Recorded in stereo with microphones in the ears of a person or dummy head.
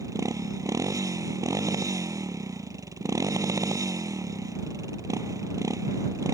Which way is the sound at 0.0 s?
20° right (ahead or behind).